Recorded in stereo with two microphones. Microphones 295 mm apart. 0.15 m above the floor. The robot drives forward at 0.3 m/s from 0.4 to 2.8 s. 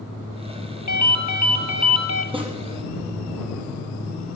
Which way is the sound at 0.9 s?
70° left (ahead or behind).